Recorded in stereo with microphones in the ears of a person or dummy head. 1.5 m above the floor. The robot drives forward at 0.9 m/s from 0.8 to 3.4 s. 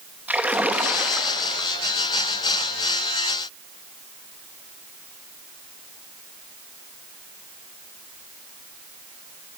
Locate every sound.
0.3 s a splash: 10° right (ahead or behind), 1.2 m; by 1.7 s 5° right (ahead or behind), 2.0 m